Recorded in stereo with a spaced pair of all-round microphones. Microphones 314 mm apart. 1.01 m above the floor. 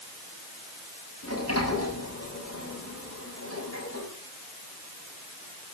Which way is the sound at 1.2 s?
45° left (ahead or behind).